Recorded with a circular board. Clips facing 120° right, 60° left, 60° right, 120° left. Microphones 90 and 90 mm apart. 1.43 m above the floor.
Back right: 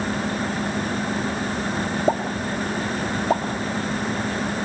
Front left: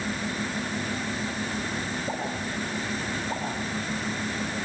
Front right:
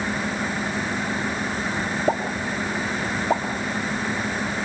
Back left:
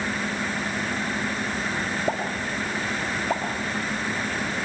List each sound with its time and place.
2.1 s a pop: 135° right, 3.5 m